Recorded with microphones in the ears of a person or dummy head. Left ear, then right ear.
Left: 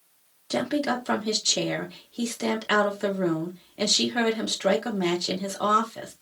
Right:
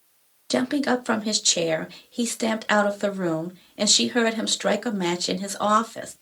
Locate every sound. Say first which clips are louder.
0.5 s a woman speaking: right 3 dB; 25° right (ahead or behind), 0.8 m